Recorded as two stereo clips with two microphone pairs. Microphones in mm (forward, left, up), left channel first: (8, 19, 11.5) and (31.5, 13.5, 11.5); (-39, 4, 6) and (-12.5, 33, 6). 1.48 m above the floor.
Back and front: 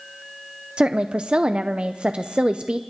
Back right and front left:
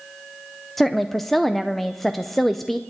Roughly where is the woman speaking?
Ahead right.